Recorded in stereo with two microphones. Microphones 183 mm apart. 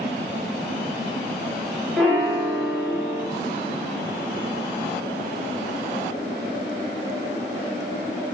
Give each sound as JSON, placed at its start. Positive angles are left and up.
{"t": 2.0, "sound": "a piano", "side_deg": 5, "distance_m": 0.7}